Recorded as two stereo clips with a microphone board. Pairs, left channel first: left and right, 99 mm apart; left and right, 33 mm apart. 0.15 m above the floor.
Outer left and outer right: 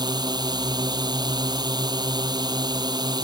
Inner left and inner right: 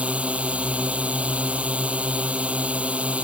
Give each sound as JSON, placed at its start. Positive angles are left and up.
{"t": 0.0, "sound": "a drone", "side_deg": -45}